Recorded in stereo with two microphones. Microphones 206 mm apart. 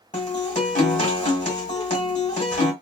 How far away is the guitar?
About 1.6 m.